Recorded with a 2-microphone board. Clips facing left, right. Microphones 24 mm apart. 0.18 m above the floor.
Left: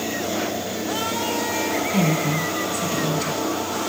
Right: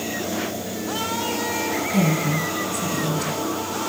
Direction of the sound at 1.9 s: 20° left (ahead or behind).